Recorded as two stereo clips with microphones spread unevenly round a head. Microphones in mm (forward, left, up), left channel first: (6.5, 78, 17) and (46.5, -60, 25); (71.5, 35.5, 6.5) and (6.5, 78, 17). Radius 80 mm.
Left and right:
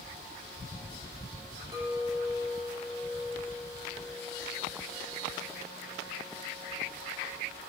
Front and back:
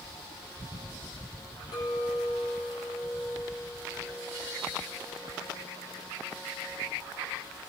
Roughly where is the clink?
Ahead.